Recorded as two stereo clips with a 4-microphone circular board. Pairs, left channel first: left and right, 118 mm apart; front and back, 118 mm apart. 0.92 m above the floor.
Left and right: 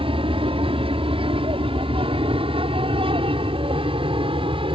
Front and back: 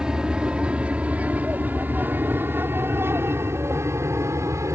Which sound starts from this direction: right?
An aircraft, at 0.0 s.